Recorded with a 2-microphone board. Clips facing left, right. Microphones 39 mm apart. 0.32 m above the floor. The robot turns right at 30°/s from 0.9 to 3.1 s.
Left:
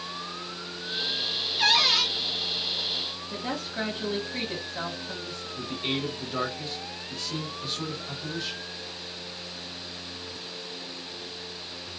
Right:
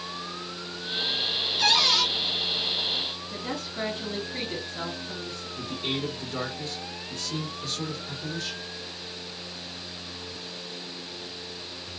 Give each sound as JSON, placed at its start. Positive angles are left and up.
{"t": 1.6, "sound": "a cupboard door", "side_deg": 25, "distance_m": 1.6}
{"t": 3.3, "sound": "a woman speaking", "side_deg": 55, "distance_m": 1.7}
{"t": 5.6, "sound": "a man speaking", "side_deg": 15, "distance_m": 1.8}